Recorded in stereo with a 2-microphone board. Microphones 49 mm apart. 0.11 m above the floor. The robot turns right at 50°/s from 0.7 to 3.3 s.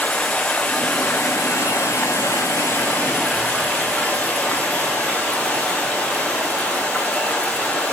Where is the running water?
30° left, 2.5 m; by 7.9 s 160° left, 2.5 m.